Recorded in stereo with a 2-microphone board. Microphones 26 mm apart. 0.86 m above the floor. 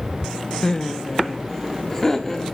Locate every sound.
0.6 s laughter: 25° left (ahead or behind), 0.7 m; by 2.5 s 15° left (ahead or behind), 1.8 m